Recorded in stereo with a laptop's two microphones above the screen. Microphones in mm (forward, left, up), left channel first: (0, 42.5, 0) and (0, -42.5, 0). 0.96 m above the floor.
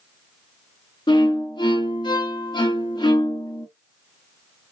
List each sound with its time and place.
1.1 s a violin: 60° left (ahead or behind), 1.0 m